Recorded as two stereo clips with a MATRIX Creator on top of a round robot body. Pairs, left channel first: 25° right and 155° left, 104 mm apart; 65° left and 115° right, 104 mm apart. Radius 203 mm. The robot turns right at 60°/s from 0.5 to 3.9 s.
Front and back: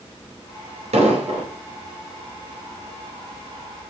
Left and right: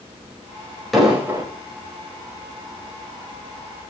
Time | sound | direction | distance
0.9 | an explosion | 155° left | 4 m